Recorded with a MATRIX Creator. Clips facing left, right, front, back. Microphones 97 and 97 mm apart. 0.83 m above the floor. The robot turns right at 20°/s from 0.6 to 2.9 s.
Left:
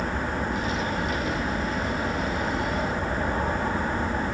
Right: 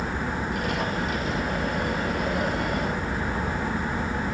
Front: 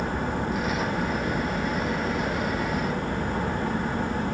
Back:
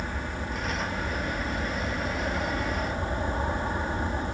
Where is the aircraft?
80° left; by 4.3 s 125° left.